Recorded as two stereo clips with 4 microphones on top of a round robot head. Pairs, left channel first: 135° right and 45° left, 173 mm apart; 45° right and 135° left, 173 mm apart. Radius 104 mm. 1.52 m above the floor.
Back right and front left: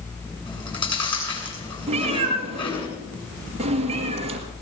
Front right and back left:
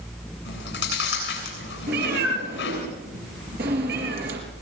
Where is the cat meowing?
100° left, 3.5 m.